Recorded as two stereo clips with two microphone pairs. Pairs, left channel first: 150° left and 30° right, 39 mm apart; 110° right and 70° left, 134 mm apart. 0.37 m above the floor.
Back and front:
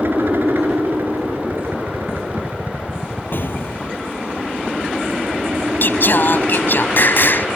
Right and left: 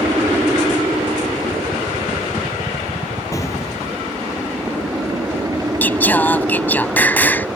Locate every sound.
0.0 s a helicopter: straight ahead; by 7.6 s 10° left
3.3 s an explosion: 175° right
5.8 s singing: 175° left